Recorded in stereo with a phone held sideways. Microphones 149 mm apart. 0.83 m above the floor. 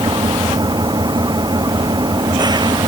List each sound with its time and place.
0.0 s an engine running: 30° right (ahead or behind)